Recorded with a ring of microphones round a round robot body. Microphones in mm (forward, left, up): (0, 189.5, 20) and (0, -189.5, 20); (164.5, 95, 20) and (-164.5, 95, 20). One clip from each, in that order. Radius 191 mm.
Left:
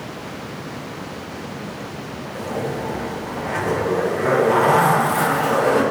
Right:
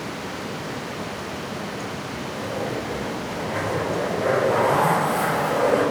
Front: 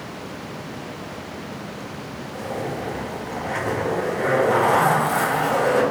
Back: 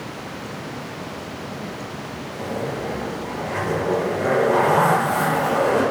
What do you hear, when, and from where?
2.3 s a zipper: 55° left, 1.0 m